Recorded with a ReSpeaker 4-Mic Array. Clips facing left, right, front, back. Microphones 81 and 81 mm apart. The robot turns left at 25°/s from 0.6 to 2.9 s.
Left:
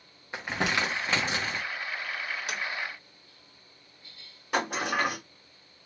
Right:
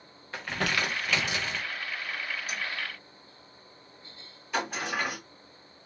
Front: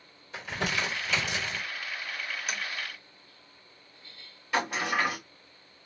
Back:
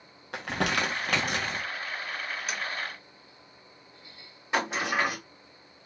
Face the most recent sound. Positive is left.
turn(degrees=110)